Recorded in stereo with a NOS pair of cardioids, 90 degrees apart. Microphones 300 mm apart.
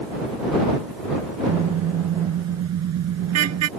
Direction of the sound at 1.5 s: 65° right.